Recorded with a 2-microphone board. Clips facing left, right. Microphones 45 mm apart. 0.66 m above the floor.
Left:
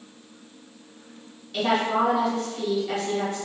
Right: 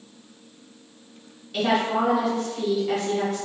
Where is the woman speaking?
5° right (ahead or behind), 1.5 m.